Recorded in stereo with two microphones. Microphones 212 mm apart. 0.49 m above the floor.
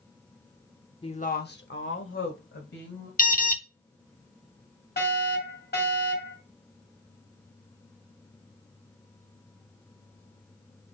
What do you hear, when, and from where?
1.0 s a woman speaking: 25° left (ahead or behind), 0.7 m; by 3.1 s 70° left (ahead or behind), 2.5 m
3.2 s an alarm: 40° left (ahead or behind), 0.7 m
5.0 s a fire alarm: 45° left (ahead or behind), 3.5 m